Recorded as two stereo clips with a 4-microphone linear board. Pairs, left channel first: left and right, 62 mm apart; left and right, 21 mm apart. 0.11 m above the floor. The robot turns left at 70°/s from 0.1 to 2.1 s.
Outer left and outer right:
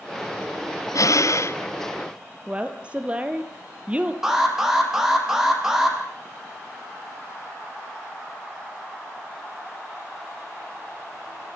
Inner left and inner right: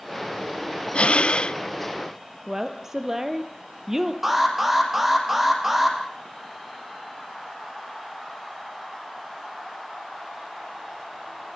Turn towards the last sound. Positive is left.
turn(degrees=-10)  # may be behind; listen again after turning